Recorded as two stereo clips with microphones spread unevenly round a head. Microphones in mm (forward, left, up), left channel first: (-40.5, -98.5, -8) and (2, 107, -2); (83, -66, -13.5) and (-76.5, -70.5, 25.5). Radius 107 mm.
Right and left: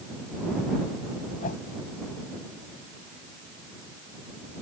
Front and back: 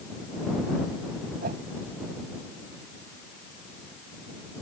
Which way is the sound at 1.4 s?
155° right.